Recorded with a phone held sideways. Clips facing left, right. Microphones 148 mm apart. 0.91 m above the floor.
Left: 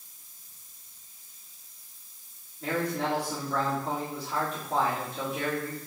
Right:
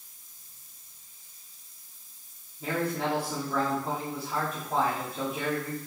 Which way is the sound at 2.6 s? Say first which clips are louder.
Even; 5° right (ahead or behind).